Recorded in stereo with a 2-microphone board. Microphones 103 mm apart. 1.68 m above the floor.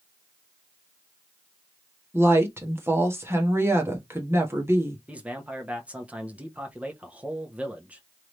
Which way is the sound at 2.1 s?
25° right (ahead or behind).